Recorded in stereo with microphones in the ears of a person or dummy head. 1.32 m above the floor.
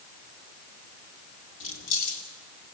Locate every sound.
1.6 s keys jangling: 75° left (ahead or behind), 3 m